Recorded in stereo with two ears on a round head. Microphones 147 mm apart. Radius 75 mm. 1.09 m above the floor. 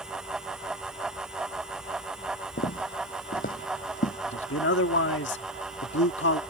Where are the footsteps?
55° left (ahead or behind); by 4.2 s 50° left (ahead or behind).